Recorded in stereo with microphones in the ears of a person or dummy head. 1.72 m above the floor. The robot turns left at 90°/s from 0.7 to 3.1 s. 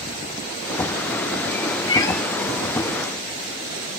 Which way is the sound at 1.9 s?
30° left (ahead or behind).